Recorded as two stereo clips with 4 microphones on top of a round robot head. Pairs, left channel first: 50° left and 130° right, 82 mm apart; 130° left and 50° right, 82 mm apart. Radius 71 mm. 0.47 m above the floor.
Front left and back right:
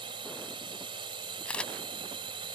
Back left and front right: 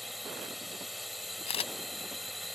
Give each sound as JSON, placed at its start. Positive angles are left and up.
{"t": 0.0, "sound": "a drone", "azimuth_deg": -140}
{"t": 1.4, "sound": "a camera shutter", "azimuth_deg": 125}